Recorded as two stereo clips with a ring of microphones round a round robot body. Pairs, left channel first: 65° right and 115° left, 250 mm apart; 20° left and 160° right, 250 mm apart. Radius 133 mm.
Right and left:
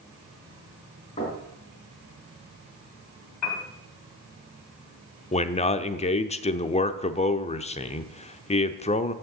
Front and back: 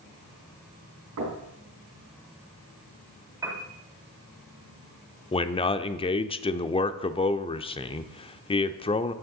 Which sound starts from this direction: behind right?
Knocking, at 1.2 s.